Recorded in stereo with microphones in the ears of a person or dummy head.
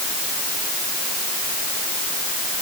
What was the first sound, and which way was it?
Only background noise.